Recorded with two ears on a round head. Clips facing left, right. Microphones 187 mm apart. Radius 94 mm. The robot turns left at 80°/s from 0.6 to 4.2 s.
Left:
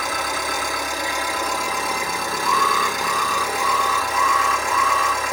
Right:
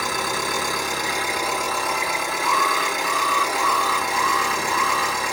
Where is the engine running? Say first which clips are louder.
Even; 105° right, 4 m; by 5.3 s 30° right, 4 m.